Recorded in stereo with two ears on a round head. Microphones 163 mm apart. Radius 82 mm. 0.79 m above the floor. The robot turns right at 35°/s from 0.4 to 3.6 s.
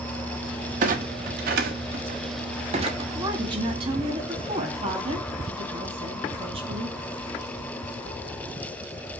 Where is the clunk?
50° right (ahead or behind), 0.8 m; by 3.0 s 30° right (ahead or behind), 0.8 m.